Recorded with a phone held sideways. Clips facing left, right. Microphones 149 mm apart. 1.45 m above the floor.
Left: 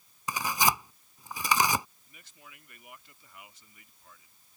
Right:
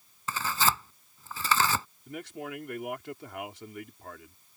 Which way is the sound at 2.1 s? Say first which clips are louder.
Right 19 dB; 85° right.